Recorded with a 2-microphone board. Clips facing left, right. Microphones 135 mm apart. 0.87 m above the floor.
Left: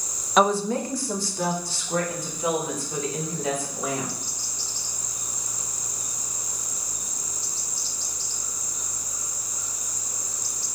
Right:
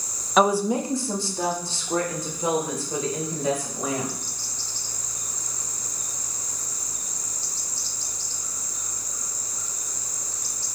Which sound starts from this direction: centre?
A woman speaking, at 0.4 s.